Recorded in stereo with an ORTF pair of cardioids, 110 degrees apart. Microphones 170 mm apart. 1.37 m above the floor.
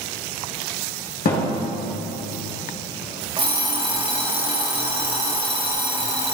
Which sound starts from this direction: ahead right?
An alarm clock, at 3.4 s.